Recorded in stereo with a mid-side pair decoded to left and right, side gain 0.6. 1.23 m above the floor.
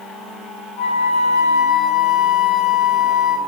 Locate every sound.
0.8 s a flute: 60° left, 2.5 m